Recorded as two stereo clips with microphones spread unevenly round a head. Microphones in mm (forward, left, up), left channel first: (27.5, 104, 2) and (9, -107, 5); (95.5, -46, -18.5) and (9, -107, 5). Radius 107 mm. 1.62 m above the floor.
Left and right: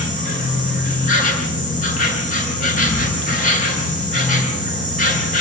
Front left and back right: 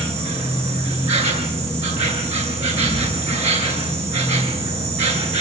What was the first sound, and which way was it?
An insect, 140° left.